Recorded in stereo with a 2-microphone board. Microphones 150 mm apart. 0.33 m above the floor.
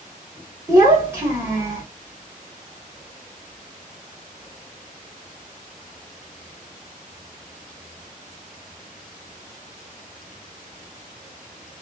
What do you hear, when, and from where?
0.7 s a child speaking: 15° right (ahead or behind), 1.0 m